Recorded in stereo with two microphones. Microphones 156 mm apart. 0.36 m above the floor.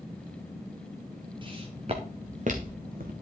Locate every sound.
1.4 s footsteps: 30° right (ahead or behind), 2.5 m; by 3.1 s 70° right (ahead or behind), 1.9 m